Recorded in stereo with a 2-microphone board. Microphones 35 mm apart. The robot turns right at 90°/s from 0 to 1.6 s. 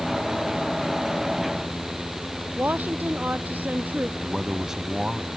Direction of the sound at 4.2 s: 20° right (ahead or behind).